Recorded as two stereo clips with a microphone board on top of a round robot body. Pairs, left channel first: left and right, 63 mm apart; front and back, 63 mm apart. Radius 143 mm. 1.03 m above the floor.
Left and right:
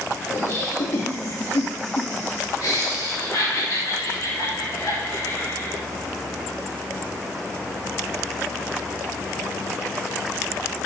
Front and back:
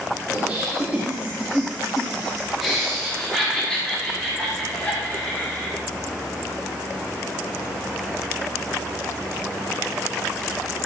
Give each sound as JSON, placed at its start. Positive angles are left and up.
{"t": 0.3, "sound": "laughter", "azimuth_deg": 120, "distance_m": 2.5}